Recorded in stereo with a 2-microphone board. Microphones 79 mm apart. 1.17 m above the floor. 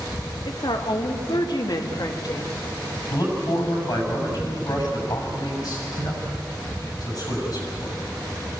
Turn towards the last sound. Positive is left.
turn(degrees=50)  # may be behind; listen again after turning